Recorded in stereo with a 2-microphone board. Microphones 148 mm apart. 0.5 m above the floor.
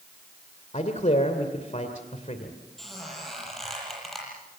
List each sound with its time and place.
0.7 s a man speaking: 55° left (ahead or behind), 2 m
2.8 s a squeak: centre (ahead or behind), 8.5 m